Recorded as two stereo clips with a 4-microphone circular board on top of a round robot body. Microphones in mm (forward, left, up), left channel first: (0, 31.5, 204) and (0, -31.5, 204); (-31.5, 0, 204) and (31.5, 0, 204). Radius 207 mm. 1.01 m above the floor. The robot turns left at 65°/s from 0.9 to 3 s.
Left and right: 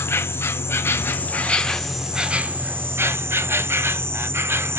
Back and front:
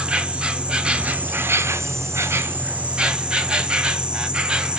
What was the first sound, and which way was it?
An insect, 65° left.